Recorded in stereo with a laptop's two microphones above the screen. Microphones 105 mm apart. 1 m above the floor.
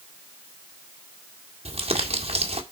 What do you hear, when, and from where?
1.6 s crumpling: 75° right (ahead or behind), 1.7 m